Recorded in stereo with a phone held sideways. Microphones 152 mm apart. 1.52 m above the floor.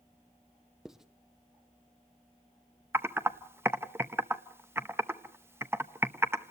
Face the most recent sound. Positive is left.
turn(degrees=-15)  # may be behind; listen again after turning